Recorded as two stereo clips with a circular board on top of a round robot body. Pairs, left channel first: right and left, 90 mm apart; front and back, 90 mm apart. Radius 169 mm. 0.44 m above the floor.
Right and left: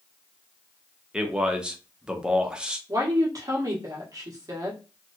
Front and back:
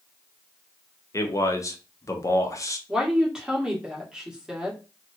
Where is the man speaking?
15° left, 1.0 m.